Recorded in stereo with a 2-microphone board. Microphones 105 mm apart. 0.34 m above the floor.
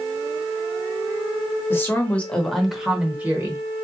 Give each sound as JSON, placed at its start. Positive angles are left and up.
{"t": 1.7, "sound": "a woman speaking", "side_deg": 20, "distance_m": 1.0}